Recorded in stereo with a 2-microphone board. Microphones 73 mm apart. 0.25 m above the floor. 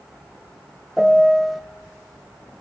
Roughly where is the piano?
Centre.